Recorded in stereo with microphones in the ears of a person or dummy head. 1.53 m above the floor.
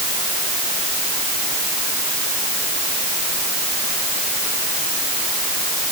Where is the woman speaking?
No woman speaking in this recording.